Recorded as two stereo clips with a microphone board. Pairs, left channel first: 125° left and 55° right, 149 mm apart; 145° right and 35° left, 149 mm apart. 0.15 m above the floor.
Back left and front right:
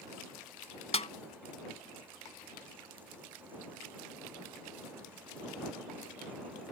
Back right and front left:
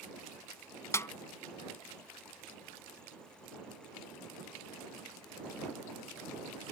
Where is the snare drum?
150° left.